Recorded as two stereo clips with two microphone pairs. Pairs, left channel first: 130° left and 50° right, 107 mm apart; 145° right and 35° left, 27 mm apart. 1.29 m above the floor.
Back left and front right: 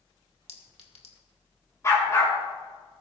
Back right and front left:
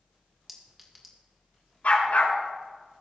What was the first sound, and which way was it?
A clink, 115° left.